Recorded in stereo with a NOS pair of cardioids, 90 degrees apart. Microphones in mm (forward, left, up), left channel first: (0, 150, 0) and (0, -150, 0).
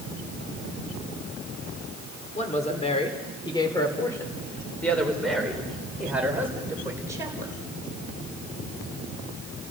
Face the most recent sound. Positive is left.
turn(degrees=-10)